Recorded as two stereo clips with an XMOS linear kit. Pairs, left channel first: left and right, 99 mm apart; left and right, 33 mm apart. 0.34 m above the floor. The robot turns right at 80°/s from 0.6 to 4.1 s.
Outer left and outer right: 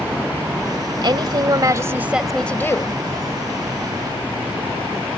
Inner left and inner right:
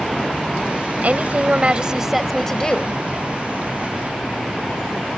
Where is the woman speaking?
105° right; by 3.0 s 55° left.